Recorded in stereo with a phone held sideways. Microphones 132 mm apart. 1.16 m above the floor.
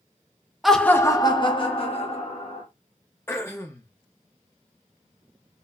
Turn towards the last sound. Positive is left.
turn(degrees=20)  # may be behind; listen again after turning